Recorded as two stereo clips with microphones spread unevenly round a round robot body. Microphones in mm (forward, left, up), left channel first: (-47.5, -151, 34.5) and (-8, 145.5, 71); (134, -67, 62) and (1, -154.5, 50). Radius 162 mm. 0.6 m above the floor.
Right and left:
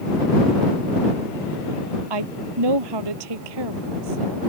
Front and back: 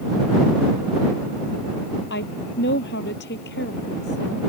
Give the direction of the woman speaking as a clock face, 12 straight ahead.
9 o'clock.